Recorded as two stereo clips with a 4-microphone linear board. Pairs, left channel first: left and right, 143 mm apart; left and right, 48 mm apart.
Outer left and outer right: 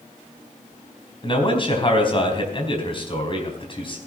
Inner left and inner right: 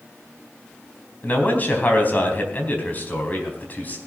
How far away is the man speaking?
About 3.5 m.